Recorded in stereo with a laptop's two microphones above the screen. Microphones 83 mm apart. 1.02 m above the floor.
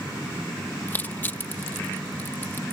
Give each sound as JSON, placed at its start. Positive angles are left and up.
{"t": 0.9, "sound": "crushing", "side_deg": 25}